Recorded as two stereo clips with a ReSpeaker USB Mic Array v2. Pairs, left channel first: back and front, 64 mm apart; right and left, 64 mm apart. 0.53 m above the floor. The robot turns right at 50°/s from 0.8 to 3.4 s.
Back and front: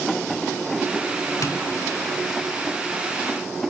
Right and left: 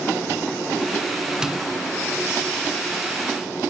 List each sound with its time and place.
1.4 s tapping: 165° left, 2 m; by 1.6 s 175° left, 2 m